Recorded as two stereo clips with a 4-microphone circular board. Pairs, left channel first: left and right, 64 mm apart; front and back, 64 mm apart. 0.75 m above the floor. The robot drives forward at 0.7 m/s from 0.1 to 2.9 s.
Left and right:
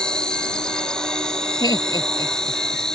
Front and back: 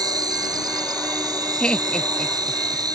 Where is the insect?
170° left.